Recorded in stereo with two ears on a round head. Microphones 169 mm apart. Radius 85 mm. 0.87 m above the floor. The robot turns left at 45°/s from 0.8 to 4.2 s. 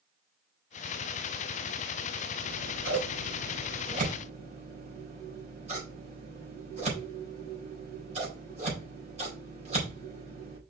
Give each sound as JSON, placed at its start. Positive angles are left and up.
{"t": 2.4, "sound": "scissors", "side_deg": -60, "distance_m": 4.0}